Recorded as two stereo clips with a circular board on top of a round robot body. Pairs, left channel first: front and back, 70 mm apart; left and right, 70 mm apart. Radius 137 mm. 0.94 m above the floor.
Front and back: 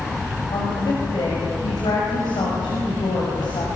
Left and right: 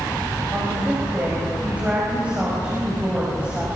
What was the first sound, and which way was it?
A woman speaking, 15° right.